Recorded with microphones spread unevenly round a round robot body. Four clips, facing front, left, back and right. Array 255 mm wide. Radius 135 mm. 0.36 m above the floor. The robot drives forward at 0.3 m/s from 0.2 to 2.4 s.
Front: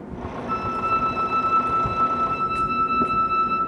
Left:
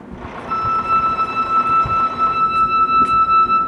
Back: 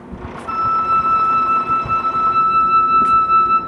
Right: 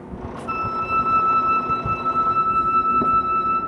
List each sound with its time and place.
0.5 s a flute: 150° right, 0.8 m; by 3.6 s 165° right, 1.3 m